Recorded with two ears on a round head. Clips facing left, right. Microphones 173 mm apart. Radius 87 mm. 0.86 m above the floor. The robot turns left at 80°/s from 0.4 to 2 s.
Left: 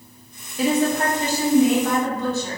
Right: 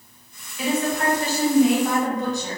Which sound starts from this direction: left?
A woman speaking, at 0.6 s.